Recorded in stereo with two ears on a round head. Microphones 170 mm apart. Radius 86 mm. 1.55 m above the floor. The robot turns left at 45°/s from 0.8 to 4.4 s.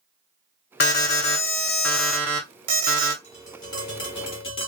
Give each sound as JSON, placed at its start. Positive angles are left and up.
{"t": 0.8, "sound": "an alarm", "azimuth_deg": 55, "distance_m": 0.9}
{"t": 3.2, "sound": "tapping", "azimuth_deg": 155, "distance_m": 1.3}